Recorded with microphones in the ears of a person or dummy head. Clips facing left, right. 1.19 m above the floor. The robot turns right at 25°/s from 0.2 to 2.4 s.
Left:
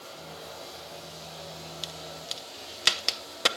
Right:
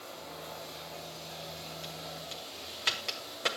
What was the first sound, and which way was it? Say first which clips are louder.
Running water: left 1 dB; 50° left.